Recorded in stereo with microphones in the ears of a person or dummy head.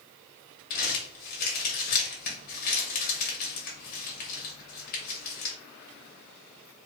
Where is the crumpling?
45° left (ahead or behind), 0.9 m.